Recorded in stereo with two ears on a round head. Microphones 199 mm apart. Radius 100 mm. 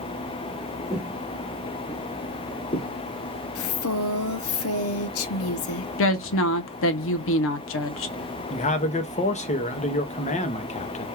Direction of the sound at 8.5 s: 30° left (ahead or behind).